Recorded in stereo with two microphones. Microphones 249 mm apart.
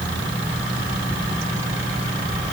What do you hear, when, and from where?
Only background noise.